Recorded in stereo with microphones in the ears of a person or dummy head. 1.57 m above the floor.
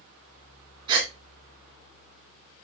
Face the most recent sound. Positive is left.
turn(degrees=-25)  # may be behind; listen again after turning